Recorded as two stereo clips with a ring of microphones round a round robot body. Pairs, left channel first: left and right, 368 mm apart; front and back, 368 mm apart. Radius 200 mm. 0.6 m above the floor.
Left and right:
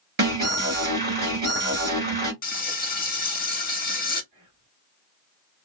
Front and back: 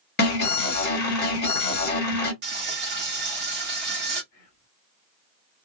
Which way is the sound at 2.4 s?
140° left.